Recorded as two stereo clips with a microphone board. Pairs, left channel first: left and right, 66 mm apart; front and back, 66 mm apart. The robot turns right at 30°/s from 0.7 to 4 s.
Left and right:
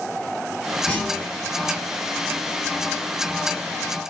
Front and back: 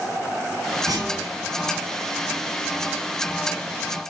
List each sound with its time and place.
0.9 s a clunk: 160° left, 5.5 m; by 1.3 s 175° left, 5.5 m